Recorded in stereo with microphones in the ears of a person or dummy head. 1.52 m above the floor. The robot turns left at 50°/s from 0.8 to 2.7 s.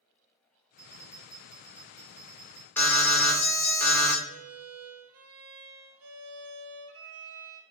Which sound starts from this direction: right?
A violin, at 4.2 s.